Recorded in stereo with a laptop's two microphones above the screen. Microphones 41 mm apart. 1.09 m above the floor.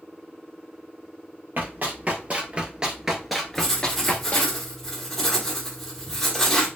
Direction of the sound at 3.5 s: 5° left (ahead or behind).